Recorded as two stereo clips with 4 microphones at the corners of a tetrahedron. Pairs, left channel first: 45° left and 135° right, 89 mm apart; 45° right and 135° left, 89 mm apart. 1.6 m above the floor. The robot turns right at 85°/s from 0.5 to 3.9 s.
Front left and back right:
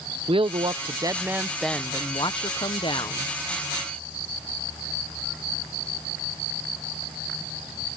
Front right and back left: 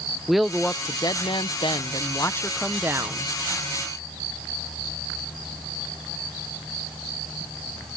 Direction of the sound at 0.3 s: 135° right.